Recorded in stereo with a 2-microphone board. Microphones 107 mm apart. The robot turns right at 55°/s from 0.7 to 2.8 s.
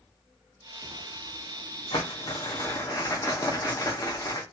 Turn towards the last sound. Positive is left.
turn(degrees=130)